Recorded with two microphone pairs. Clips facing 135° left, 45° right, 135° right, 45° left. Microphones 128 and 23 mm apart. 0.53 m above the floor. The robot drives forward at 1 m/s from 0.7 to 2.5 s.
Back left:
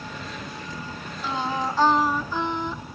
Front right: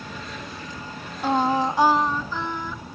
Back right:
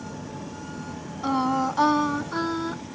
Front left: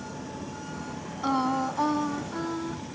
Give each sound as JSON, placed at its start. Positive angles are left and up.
{"t": 1.2, "sound": "singing", "azimuth_deg": -45, "distance_m": 0.6}